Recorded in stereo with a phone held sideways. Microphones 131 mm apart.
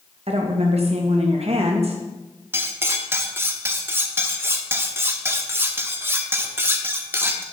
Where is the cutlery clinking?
20° right (ahead or behind), 0.8 m.